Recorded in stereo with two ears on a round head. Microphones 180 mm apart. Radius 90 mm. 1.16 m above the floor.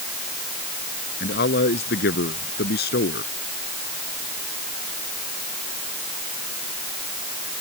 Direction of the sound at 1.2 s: 55° left (ahead or behind).